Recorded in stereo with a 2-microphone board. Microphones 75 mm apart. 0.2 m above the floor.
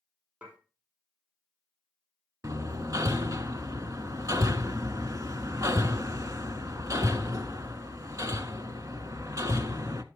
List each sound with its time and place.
0.4 s dishes clattering: 20° right (ahead or behind), 4.5 m
2.4 s hammering: 50° right (ahead or behind), 0.7 m